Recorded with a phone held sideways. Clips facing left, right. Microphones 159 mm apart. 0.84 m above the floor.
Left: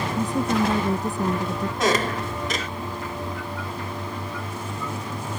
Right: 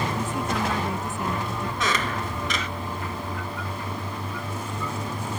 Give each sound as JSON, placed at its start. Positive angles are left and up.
{"t": 0.2, "sound": "a woman speaking", "side_deg": 35}
{"t": 1.8, "sound": "a squeak", "side_deg": 40}